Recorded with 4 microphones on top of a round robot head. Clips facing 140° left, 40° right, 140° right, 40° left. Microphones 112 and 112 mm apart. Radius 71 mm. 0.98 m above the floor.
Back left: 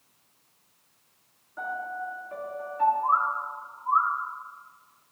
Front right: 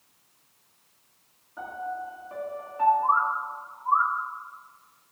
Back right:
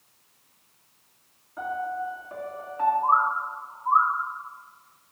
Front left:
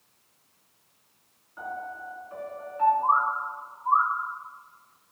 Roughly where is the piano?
Right.